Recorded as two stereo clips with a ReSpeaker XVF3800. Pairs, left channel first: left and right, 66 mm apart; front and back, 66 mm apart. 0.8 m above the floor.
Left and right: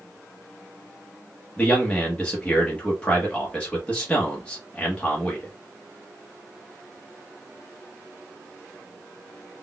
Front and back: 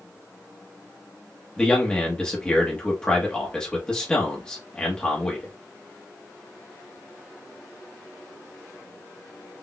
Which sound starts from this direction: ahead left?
A man speaking, at 1.6 s.